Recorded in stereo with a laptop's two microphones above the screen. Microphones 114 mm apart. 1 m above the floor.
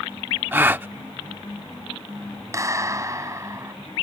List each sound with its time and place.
0.5 s a gasp: 20° right (ahead or behind)
2.5 s a clap: 30° right (ahead or behind)